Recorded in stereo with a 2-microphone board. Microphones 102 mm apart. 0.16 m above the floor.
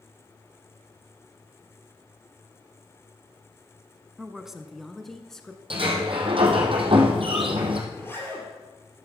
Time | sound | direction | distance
4.2 | a woman speaking | 5° right (ahead or behind) | 1.1 m
5.7 | a sliding door | 60° right (ahead or behind) | 2.5 m
7.9 | a zipper | 25° left (ahead or behind) | 4.5 m